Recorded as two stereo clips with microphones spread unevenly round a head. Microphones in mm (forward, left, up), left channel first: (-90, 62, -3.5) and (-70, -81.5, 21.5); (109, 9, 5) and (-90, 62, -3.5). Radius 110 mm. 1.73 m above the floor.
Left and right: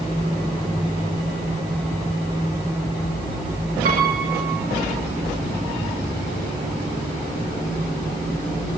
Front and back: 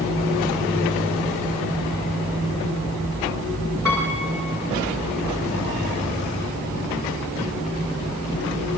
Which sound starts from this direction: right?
A piano, at 3.9 s.